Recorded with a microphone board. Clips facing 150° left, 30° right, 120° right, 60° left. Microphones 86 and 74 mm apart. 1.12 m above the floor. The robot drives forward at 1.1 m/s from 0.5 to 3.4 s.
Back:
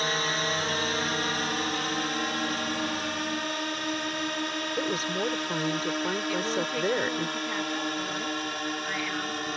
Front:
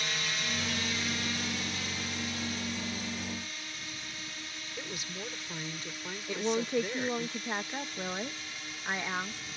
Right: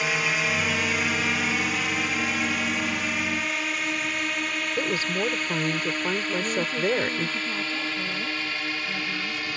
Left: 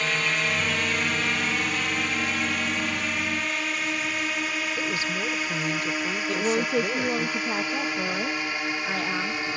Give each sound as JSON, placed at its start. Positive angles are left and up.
{"t": 0.0, "sound": "a drone", "azimuth_deg": 160}
{"t": 4.8, "sound": "a woman speaking", "azimuth_deg": -165}
{"t": 6.3, "sound": "a woman speaking", "azimuth_deg": 40}